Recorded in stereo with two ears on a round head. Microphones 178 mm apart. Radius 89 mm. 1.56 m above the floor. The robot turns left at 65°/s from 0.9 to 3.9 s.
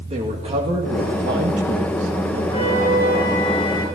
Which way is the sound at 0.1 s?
30° right.